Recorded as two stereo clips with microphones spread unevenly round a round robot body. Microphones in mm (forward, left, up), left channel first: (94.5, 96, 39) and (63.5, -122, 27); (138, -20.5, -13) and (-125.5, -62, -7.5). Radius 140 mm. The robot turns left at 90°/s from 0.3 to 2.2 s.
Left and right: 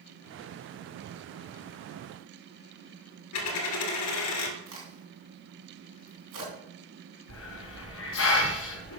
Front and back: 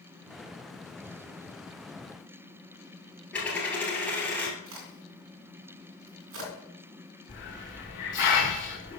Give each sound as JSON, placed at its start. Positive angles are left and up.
{"t": 3.3, "sound": "a dropped coin", "azimuth_deg": 95, "distance_m": 1.9}
{"t": 4.7, "sound": "a crack", "azimuth_deg": -135, "distance_m": 3.0}
{"t": 7.3, "sound": "a hiss", "azimuth_deg": 70, "distance_m": 2.5}